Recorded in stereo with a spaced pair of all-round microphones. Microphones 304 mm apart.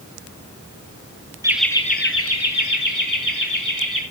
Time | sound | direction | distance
1.4 | laughter | 10° right (ahead or behind) | 1.0 m